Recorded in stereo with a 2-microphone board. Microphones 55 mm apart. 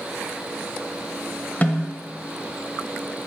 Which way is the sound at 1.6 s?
35° left (ahead or behind).